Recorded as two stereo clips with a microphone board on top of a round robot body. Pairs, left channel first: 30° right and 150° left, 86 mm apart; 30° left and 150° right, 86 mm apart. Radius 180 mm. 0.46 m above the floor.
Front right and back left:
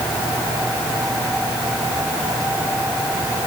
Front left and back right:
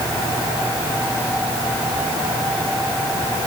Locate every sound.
Only background noise.